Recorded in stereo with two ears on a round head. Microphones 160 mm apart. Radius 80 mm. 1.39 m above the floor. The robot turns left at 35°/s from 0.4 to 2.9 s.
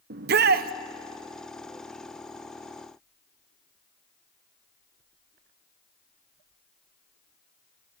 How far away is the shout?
About 0.8 m.